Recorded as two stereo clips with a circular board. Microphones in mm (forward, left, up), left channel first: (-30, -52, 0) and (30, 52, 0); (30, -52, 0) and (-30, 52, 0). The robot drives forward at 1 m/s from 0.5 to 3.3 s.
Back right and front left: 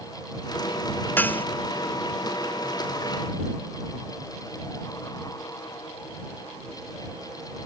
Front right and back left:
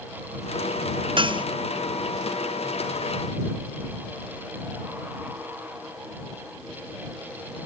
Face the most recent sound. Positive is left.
turn(degrees=170)